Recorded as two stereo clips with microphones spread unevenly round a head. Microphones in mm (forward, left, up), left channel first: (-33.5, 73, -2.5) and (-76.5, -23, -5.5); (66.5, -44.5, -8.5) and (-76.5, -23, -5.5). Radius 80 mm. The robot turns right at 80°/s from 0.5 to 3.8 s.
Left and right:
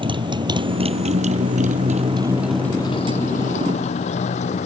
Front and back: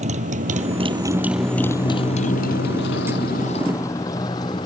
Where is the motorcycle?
150° right; by 4.7 s 55° left.